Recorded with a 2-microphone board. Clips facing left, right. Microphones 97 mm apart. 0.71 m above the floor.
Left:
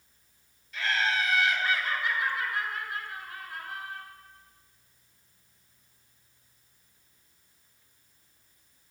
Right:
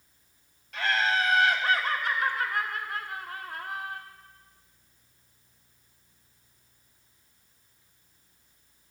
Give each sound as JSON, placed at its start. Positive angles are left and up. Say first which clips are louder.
{"t": 0.7, "sound": "laughter", "louder": "right 2 dB", "side_deg": -60, "distance_m": 2.0}